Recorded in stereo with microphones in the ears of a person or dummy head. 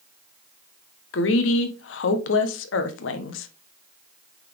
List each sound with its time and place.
1.1 s a woman speaking: 55° left (ahead or behind), 1.0 m